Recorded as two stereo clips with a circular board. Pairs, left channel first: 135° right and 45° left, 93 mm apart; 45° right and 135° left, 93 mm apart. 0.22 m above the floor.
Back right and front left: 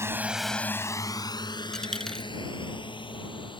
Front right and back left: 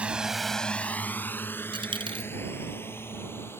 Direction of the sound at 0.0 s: 70° left.